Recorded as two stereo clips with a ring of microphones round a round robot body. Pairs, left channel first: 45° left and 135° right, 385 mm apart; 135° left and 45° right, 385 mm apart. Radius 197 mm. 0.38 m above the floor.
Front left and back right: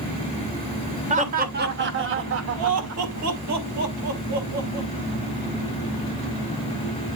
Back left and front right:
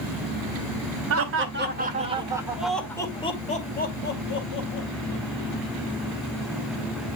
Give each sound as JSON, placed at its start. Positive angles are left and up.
{"t": 1.1, "sound": "laughter", "azimuth_deg": -70, "distance_m": 1.7}